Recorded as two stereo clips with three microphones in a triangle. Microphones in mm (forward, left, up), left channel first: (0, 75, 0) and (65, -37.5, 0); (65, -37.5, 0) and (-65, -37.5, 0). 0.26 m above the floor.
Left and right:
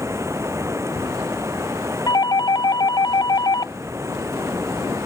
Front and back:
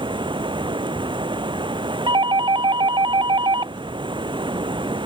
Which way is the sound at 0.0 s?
130° right.